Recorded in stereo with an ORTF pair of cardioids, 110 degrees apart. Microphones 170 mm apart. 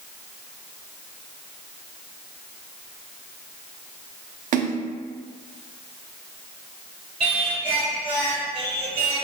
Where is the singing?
35° right, 1.0 m.